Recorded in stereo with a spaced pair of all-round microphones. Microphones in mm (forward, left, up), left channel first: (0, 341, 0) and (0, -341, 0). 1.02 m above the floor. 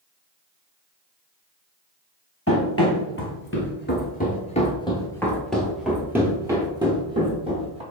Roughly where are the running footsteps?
Centre.